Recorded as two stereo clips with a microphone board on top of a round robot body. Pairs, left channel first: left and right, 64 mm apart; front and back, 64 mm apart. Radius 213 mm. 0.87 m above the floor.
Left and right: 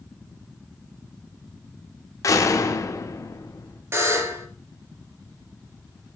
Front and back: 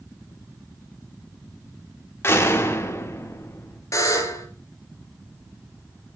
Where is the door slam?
55° left, 1.7 m.